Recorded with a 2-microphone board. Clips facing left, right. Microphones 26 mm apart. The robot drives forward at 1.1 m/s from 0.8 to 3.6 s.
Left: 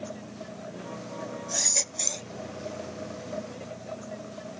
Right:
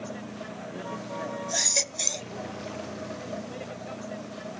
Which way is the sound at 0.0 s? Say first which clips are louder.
Right 2 dB; 20° right (ahead or behind).